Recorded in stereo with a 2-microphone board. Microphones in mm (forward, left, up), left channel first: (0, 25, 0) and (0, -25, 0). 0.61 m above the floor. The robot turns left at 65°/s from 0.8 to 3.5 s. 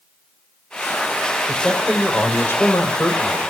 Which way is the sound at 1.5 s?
165° right.